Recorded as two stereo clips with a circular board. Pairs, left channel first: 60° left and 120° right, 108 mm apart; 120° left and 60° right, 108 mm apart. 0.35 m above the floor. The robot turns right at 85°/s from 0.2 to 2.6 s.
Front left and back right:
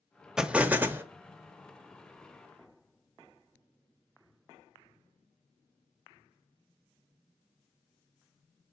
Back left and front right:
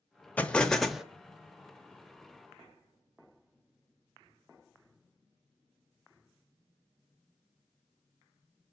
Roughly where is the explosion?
Behind.